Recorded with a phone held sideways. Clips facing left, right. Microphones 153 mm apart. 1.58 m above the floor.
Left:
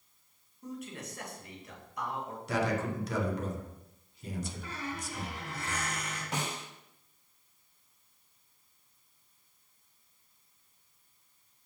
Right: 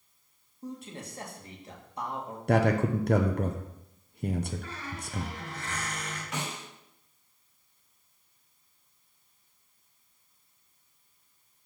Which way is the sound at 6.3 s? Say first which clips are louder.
Left 1 dB; 35° left (ahead or behind).